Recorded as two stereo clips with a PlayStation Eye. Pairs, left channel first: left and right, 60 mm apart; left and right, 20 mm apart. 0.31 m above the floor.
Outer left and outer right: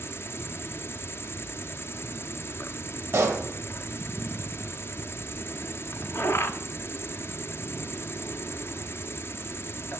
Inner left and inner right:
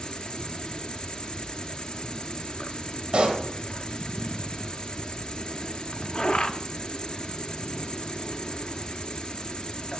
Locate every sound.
0.0 s an insect: 45° left (ahead or behind), 0.8 m
3.1 s a pop: 35° right (ahead or behind), 2 m